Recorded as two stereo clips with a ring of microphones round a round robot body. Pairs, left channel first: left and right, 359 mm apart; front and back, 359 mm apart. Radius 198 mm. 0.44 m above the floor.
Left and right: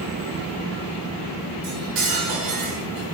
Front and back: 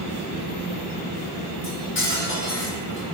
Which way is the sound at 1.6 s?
55° right.